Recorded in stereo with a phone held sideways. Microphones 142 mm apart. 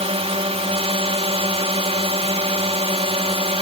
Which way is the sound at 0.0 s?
45° right (ahead or behind).